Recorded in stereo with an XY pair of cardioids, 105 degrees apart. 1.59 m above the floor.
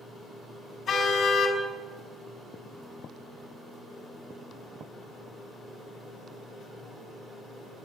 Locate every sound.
0.9 s a car horn: 55° left, 4.5 m